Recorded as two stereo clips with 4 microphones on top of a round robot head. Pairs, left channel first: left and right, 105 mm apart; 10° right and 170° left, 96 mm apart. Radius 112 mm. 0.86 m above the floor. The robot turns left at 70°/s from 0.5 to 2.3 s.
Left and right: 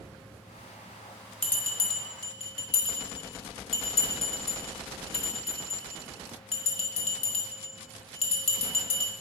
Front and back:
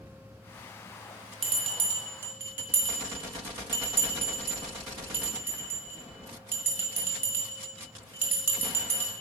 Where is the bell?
165° left, 0.9 m; by 9.1 s 105° left, 0.9 m.